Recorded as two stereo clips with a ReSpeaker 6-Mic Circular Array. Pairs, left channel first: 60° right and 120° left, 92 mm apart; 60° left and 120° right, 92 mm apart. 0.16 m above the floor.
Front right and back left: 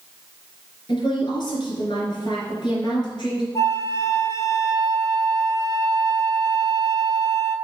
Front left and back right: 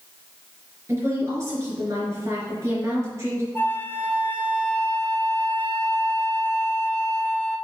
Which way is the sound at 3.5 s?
5° right.